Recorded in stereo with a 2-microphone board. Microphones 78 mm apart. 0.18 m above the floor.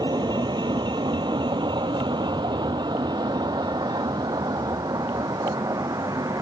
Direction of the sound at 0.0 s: 65° right (ahead or behind).